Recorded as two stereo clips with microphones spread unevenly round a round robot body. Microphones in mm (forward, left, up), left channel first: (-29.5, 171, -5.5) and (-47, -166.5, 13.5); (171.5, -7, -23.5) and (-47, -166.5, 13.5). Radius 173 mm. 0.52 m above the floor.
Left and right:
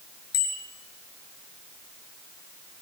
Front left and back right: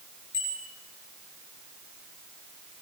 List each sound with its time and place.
0.3 s a bicycle bell: 110° left, 6 m